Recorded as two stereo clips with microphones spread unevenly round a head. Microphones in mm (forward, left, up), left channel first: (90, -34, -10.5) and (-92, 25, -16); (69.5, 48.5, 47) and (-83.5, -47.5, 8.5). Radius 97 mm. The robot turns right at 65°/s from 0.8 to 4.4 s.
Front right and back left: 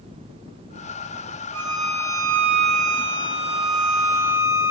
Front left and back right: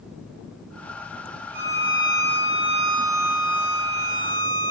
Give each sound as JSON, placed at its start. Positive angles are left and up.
{"t": 1.5, "sound": "a violin", "azimuth_deg": 180, "distance_m": 3.0}